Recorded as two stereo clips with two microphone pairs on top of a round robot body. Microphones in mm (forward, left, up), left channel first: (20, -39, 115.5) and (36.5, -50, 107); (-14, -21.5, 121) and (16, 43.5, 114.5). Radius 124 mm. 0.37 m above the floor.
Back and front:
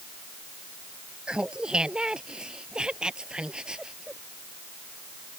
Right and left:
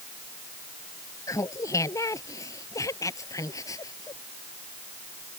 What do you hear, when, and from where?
1.3 s laughter: 70° right